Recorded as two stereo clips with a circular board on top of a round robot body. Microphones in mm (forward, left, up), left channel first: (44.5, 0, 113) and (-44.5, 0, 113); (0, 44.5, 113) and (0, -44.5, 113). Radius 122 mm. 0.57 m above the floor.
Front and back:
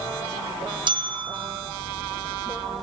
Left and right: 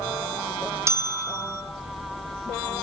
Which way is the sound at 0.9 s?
150° right.